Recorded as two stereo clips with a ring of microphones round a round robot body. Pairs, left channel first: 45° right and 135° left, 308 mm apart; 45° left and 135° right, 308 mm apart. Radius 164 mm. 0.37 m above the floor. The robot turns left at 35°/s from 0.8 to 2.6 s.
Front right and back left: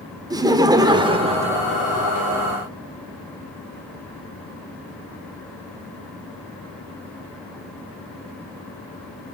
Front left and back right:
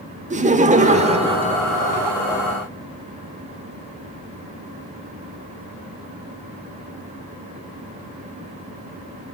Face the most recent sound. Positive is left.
turn(degrees=135)